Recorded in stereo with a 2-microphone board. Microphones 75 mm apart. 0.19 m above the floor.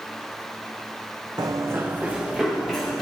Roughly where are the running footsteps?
Right.